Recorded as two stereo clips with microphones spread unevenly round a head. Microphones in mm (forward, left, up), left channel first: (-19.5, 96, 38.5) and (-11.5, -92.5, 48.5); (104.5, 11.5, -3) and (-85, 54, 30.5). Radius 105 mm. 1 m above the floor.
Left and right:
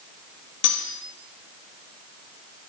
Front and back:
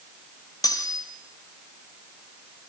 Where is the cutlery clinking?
60° left, 2.5 m.